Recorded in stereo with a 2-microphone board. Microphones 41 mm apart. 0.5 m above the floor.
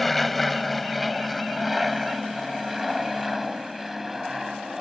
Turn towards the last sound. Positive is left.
turn(degrees=-10)  # may be behind; listen again after turning